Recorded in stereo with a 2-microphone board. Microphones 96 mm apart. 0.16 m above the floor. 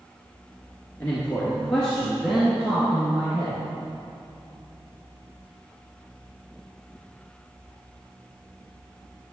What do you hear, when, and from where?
1.0 s a man speaking: 15° left (ahead or behind), 2 m; by 3.6 s 10° right (ahead or behind), 3.5 m